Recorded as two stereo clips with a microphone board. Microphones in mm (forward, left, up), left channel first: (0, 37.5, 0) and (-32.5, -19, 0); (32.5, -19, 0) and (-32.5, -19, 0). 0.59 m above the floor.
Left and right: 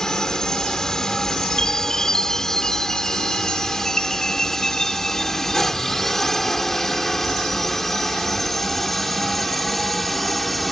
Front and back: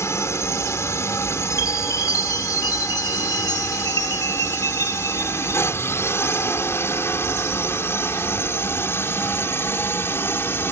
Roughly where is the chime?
Ahead.